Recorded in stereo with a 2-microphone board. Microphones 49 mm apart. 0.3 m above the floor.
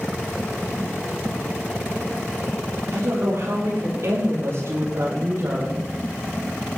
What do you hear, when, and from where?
2.9 s a woman speaking: 65° right (ahead or behind), 7.5 m; by 5.9 s 55° right (ahead or behind), 9.5 m